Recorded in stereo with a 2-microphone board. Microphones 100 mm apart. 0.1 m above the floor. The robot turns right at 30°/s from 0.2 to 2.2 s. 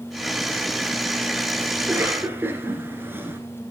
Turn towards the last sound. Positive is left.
turn(degrees=-20)  # may be behind; listen again after turning